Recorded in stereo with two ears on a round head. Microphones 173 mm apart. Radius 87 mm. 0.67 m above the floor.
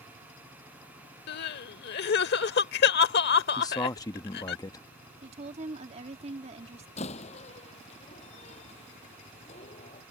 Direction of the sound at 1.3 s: 55° left (ahead or behind).